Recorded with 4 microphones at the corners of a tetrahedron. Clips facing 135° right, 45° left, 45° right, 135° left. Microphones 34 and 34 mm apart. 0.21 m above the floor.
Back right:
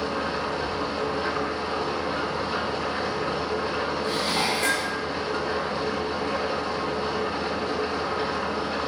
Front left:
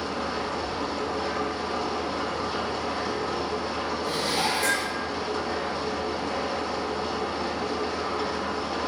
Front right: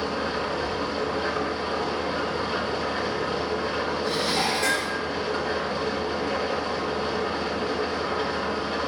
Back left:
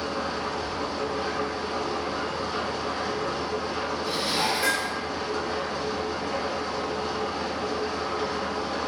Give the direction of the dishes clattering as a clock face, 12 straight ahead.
5 o'clock.